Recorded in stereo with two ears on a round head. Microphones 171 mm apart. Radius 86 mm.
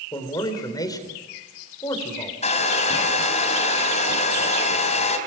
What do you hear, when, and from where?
0.1 s a man speaking: 20° left (ahead or behind), 4 m
2.4 s a hair dryer: 40° left (ahead or behind), 3.5 m